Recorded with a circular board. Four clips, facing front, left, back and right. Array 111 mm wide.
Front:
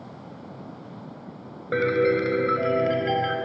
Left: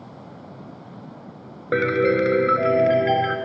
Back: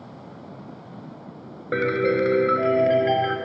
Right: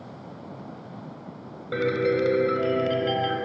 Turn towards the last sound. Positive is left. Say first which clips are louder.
# left 4 dB, even
turn(degrees=105)